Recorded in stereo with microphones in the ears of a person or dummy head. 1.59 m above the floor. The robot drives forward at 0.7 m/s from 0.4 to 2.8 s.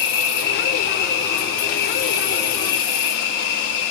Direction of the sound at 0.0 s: 65° left (ahead or behind).